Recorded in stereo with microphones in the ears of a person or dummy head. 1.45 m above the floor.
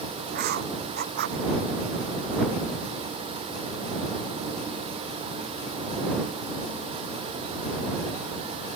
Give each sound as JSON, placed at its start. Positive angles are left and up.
{"t": 0.3, "sound": "writing", "side_deg": -60}